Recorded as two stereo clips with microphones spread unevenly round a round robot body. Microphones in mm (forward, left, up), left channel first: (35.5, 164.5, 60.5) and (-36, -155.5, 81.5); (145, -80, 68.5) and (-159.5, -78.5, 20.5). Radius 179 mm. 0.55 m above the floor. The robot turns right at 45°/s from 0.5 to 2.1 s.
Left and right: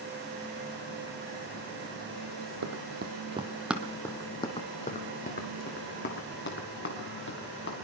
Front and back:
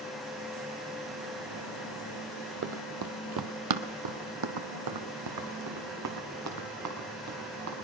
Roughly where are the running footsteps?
Behind right.